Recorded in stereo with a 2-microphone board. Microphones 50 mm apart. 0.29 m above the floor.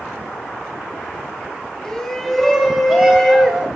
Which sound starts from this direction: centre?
A shout, at 1.8 s.